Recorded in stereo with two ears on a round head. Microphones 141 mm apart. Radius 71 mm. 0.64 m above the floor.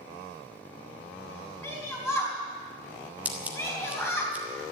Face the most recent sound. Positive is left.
turn(degrees=-10)  # may be behind; listen again after turning